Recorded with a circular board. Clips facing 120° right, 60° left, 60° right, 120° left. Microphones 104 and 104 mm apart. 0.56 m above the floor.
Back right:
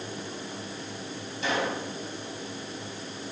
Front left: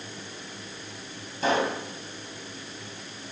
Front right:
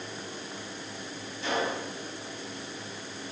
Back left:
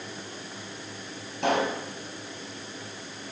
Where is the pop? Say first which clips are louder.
Front left 4 dB, back left 5 dB; 105° left, 3.5 m.